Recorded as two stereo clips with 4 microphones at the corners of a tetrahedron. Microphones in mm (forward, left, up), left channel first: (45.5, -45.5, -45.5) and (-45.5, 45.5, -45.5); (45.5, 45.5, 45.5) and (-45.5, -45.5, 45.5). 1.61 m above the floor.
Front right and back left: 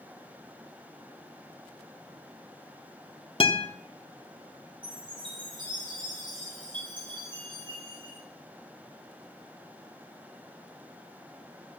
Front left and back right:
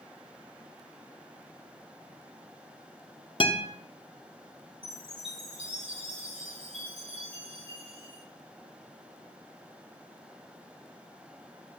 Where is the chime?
175° right, 5 m.